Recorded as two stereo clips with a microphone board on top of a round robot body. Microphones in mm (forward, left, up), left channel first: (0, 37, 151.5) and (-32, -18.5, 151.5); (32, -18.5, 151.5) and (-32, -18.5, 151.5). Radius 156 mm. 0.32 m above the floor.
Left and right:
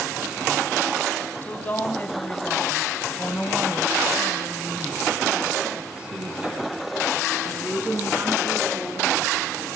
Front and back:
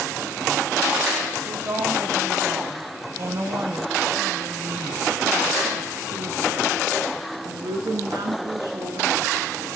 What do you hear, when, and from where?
1.4 s a woman speaking: 125° left, 3.5 m; by 9.7 s 175° right, 6.5 m